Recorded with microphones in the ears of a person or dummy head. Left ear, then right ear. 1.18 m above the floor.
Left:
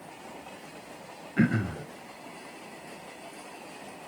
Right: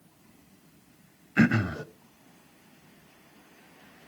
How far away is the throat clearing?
About 0.6 m.